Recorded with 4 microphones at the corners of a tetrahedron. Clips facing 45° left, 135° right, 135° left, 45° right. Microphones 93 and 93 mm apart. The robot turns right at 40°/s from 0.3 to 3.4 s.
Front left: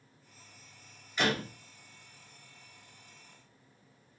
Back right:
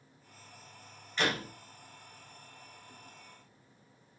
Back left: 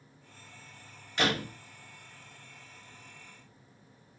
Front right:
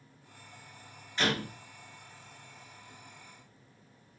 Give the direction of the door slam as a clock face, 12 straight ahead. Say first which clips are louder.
Front left 2 dB, back left 1 dB; 8 o'clock.